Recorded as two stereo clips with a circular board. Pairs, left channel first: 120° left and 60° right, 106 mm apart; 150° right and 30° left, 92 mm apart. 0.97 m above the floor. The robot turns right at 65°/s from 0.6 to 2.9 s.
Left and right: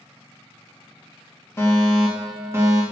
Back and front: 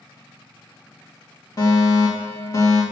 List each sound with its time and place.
1.6 s a fire alarm: straight behind, 2 m; by 2.8 s 100° right, 2 m